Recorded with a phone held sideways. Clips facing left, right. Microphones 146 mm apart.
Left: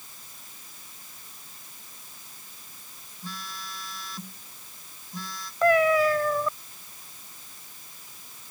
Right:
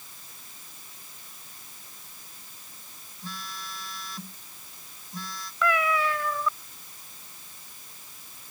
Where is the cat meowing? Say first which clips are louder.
Left 6 dB; 40° left (ahead or behind).